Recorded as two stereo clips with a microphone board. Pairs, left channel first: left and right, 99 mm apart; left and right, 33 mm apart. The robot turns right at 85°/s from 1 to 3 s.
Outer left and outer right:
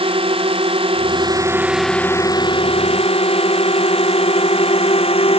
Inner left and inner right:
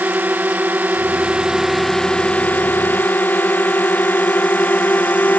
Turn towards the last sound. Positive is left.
turn(degrees=80)